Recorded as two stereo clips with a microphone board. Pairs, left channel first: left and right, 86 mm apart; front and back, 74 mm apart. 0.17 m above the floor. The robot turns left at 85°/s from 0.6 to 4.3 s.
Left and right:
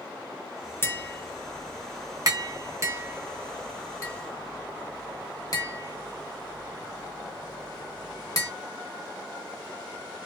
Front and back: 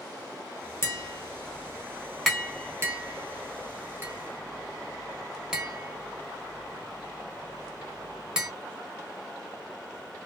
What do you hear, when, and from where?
0.8 s tapping: 40° left, 1.5 m; by 8.5 s 105° left, 1.5 m